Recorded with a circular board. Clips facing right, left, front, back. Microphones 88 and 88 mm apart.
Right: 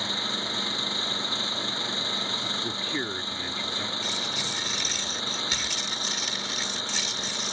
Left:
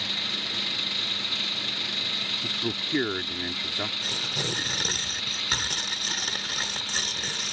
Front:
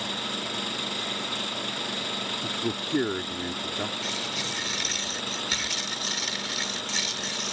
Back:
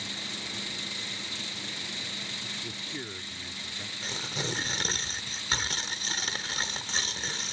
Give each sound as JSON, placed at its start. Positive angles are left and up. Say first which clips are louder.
{"t": 0.0, "sound": "an engine running", "louder": "right 4 dB, front 8 dB", "azimuth_deg": -30}
{"t": 2.4, "sound": "a man speaking", "louder": "left 1 dB, front 11 dB", "azimuth_deg": 25}
{"t": 4.0, "sound": "tearing paper", "louder": "even, front 2 dB", "azimuth_deg": 130}